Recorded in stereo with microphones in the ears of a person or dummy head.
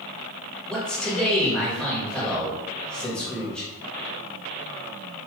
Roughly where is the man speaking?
Centre.